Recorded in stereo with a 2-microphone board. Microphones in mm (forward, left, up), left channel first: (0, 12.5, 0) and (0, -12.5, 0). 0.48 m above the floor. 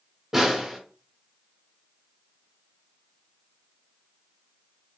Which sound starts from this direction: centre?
A snare drum, at 0.3 s.